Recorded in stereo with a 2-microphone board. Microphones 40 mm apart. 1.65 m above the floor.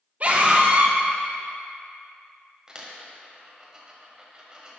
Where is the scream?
40° right (ahead or behind), 0.9 m.